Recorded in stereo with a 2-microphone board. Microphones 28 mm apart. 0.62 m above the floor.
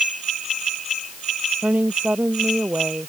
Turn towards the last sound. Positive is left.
turn(degrees=-70)  # may be behind; listen again after turning